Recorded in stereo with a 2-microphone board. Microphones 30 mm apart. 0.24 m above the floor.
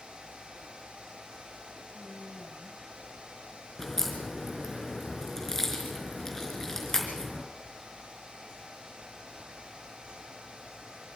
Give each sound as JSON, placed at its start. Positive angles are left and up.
{"t": 1.9, "sound": "a woman speaking", "side_deg": -70, "distance_m": 7.5}
{"t": 3.8, "sound": "a crack", "side_deg": 10, "distance_m": 4.0}